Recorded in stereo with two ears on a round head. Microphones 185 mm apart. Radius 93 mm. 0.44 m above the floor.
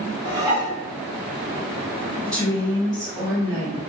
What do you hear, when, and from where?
0.2 s dishes clattering: 20° right (ahead or behind), 2 m
2.3 s a woman speaking: 20° right (ahead or behind), 2.0 m